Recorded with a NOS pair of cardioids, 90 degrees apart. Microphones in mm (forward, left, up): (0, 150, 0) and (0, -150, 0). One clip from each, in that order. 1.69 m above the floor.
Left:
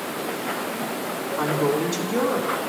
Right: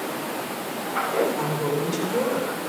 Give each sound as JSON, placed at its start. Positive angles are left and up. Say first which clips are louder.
{"t": 1.4, "sound": "a woman speaking", "louder": "left 3 dB", "azimuth_deg": 60, "distance_m": 4.0}